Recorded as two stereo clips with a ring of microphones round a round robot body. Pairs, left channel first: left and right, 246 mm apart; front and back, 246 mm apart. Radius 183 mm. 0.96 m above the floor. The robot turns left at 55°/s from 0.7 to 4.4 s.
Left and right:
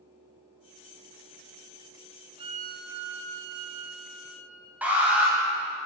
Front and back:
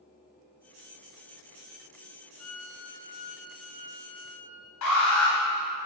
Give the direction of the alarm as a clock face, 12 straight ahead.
12 o'clock.